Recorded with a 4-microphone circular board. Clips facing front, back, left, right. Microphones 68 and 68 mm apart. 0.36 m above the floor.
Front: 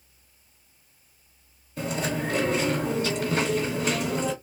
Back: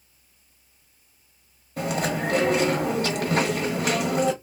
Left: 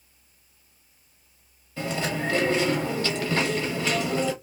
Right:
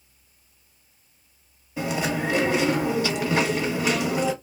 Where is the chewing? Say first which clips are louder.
Back 3 dB, right 3 dB; 165° right, 1.0 m.